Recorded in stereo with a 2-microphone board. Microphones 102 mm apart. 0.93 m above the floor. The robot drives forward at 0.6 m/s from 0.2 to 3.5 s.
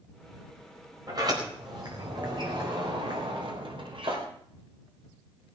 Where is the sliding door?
40° right (ahead or behind), 4.5 m; by 4.3 s 55° right (ahead or behind), 3.5 m.